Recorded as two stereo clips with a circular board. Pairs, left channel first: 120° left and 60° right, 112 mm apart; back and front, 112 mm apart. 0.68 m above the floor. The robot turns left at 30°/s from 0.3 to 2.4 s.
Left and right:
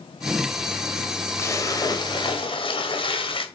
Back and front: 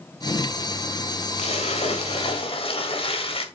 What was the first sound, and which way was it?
A splash, 175° right.